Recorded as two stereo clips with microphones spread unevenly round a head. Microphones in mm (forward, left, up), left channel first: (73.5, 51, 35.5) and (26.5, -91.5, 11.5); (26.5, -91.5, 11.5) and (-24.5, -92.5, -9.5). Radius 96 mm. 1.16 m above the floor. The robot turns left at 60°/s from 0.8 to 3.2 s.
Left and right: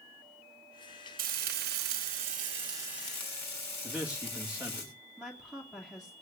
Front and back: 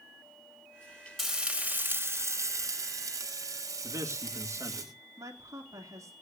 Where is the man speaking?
170° left, 2 m.